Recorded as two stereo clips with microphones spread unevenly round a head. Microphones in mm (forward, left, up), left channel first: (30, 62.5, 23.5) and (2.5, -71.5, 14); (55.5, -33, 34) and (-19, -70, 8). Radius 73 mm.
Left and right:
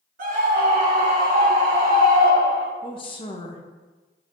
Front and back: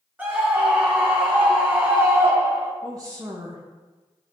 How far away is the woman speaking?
About 1.2 m.